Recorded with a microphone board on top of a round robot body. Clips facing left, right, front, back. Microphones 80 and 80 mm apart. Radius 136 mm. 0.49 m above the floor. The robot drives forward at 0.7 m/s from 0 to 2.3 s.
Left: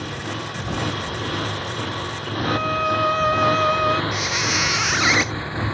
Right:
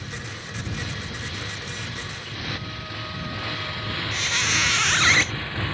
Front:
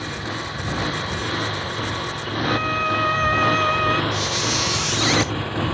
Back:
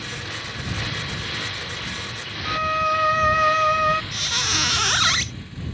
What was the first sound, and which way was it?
A motorcycle, 60° left.